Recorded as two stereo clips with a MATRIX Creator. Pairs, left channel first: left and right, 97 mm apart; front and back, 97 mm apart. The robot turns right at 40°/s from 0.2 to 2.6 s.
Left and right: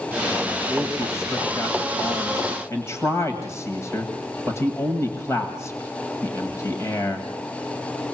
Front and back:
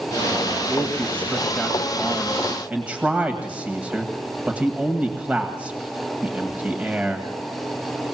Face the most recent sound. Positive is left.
turn(degrees=115)